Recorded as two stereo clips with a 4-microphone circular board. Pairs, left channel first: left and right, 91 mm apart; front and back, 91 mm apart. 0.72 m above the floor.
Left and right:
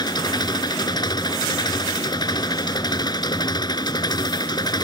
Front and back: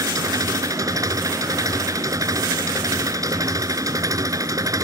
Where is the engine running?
130° left.